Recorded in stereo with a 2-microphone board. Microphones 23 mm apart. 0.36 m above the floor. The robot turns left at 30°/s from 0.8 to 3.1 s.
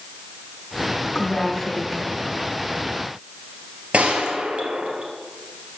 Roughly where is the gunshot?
Right.